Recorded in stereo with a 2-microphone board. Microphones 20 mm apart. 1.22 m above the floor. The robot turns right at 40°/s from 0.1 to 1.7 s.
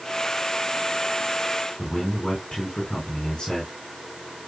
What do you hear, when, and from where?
1.8 s a man speaking: 55° left (ahead or behind), 5 m